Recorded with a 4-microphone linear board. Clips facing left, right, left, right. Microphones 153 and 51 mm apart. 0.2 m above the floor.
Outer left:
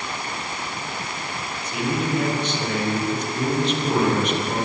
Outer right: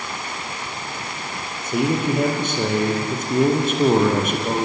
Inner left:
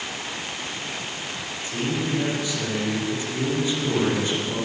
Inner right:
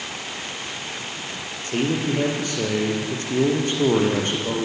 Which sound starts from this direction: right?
A man speaking, at 1.6 s.